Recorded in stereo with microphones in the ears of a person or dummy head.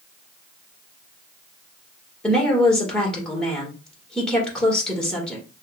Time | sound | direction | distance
2.2 | a woman speaking | centre (ahead or behind) | 1.8 m